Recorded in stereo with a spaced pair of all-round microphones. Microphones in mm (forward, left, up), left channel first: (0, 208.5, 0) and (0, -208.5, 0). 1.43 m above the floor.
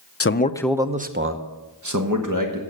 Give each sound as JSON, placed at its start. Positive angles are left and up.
{"t": 0.2, "sound": "a man speaking", "side_deg": 35, "distance_m": 0.5}